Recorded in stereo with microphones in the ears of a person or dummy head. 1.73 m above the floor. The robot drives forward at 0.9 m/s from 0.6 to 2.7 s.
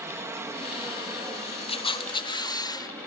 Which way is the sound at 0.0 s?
10° right (ahead or behind).